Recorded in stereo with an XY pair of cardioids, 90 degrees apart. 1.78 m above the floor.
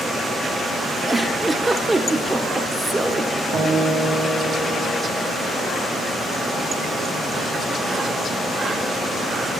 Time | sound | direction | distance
1.1 | a giggle | 25° right | 1.1 m
3.5 | a guitar | 65° right | 3 m